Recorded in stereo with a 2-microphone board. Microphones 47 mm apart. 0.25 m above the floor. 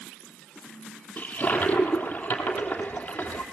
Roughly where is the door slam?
I don't hear a door slam.